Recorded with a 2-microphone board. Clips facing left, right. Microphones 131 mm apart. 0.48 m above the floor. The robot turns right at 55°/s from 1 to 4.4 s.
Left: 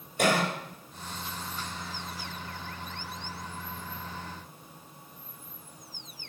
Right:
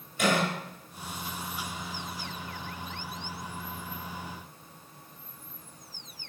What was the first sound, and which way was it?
A cough, 40° left (ahead or behind).